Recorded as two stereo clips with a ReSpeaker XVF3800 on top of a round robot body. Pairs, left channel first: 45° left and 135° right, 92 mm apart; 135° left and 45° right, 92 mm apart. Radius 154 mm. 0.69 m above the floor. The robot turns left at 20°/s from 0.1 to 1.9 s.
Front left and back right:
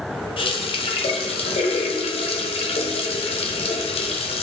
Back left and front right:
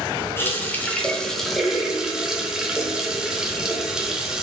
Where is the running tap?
70° left, 0.6 m; by 4.4 s 40° left, 0.6 m.